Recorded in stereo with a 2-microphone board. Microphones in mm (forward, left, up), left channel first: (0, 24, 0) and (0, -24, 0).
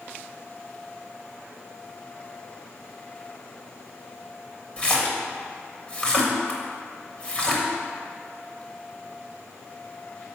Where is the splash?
25° left (ahead or behind), 1.0 m.